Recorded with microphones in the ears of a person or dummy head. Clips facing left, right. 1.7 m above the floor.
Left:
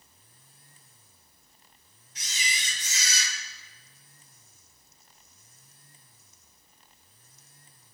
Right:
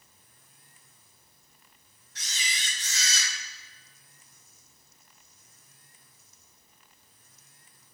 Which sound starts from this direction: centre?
A camera shutter, at 2.1 s.